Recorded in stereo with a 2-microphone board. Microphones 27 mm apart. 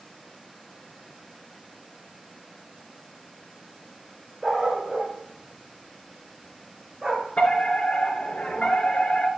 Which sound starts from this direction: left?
A fire alarm, at 7.4 s.